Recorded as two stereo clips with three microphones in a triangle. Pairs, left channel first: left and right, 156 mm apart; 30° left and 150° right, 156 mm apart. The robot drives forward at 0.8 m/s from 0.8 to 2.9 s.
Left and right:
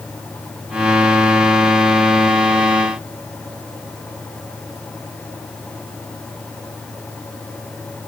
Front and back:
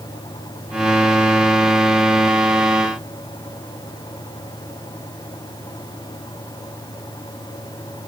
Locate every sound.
Only background noise.